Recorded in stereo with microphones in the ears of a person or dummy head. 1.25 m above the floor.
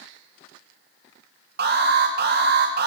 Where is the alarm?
50° right (ahead or behind), 1.8 m.